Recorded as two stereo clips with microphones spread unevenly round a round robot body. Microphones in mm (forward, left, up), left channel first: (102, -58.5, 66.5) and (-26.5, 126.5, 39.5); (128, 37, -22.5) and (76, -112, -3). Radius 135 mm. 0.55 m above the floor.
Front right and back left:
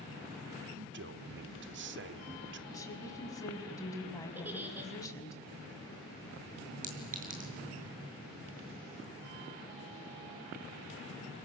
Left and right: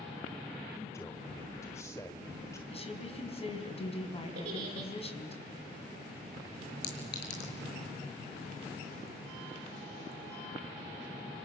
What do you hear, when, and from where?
0.7 s a man speaking: 145° left, 1.3 m
2.7 s a woman speaking: 20° left, 5 m
4.3 s a giggle: 150° right, 3 m
6.8 s a clink: 70° left, 6.5 m